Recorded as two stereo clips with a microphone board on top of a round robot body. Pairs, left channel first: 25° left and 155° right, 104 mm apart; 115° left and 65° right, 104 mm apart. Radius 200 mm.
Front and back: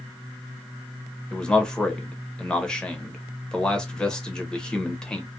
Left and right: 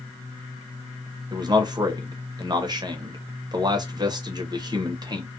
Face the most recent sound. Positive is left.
turn(degrees=-55)